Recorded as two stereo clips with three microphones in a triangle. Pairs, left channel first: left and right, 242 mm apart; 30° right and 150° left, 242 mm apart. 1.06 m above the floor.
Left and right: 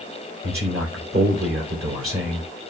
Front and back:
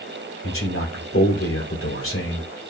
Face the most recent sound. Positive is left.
turn(degrees=-60)